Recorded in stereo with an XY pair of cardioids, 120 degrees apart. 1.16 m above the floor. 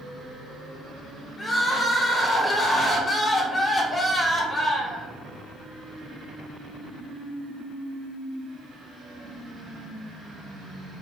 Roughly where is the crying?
Ahead.